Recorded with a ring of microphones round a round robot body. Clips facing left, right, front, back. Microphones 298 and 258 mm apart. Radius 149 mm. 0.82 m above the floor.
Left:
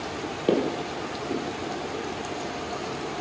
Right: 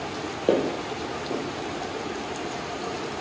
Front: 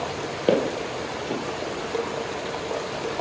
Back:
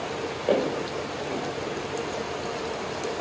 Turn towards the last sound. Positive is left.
turn(degrees=20)